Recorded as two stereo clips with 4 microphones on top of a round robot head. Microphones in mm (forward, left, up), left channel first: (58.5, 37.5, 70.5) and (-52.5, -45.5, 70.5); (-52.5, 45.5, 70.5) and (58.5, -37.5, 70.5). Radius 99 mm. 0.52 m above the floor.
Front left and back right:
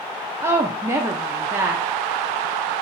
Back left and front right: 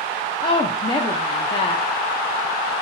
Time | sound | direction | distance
0.4 | a woman speaking | 155° left | 0.7 m